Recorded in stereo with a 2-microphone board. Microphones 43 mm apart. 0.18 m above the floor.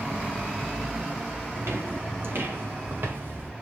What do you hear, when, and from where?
1.6 s footsteps: 65° right (ahead or behind), 4 m; by 3.5 s 50° right (ahead or behind), 4 m